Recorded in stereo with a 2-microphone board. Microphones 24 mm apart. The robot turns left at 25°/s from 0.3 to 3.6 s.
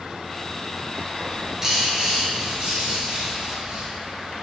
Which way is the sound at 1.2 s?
10° right.